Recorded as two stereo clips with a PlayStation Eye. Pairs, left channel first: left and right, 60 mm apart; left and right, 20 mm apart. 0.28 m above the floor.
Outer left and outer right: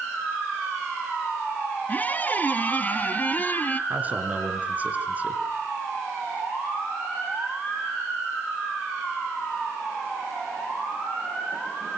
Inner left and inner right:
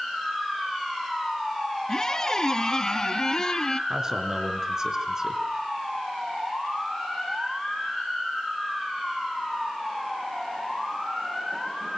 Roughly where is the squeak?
Left.